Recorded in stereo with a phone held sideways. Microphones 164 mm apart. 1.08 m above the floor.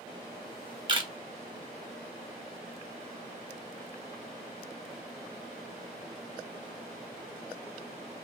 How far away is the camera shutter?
About 0.9 m.